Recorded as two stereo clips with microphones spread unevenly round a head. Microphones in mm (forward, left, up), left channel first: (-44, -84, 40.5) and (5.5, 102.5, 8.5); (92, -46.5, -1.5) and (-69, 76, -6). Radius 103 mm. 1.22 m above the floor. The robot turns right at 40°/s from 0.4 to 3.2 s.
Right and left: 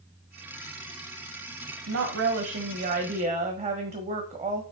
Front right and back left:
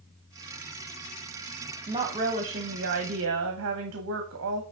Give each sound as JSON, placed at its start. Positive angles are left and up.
{"t": 1.9, "sound": "a woman speaking", "azimuth_deg": 70, "distance_m": 1.2}